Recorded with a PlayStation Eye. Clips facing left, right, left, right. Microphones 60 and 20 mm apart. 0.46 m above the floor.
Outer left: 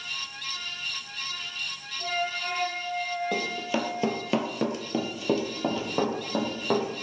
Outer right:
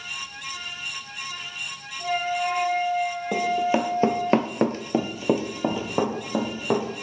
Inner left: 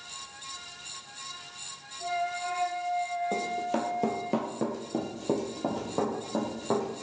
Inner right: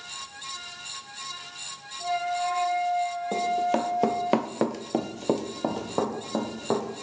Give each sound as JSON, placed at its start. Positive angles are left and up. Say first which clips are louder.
{"t": 2.0, "sound": "a flute", "louder": "outer right 5 dB, inner right 4 dB", "side_deg": -10, "distance_m": 1.6}
{"t": 3.3, "sound": "running footsteps", "louder": "outer right 7 dB, inner right 5 dB", "side_deg": -20, "distance_m": 1.1}